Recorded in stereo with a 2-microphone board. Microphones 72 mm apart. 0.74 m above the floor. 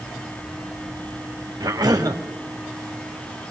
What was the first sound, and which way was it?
A cough, 60° right (ahead or behind).